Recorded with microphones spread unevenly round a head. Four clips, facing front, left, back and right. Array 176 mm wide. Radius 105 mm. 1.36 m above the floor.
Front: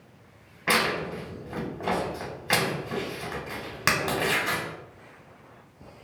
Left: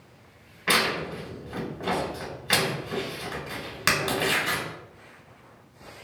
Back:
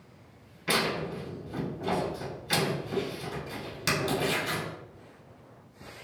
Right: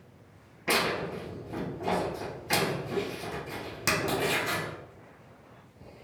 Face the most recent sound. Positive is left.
turn(degrees=15)